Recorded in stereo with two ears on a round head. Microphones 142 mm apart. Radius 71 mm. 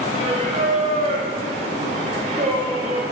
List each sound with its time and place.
0.1 s singing: 45° right (ahead or behind), 1.7 m